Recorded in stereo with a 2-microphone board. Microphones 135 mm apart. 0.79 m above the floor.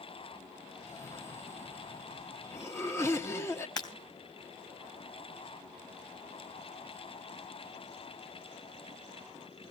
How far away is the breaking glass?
About 3 m.